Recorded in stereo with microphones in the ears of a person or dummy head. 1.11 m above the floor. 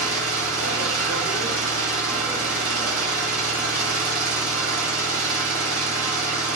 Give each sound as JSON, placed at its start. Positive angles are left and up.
{"t": 0.0, "sound": "an engine running", "side_deg": -55, "distance_m": 1.1}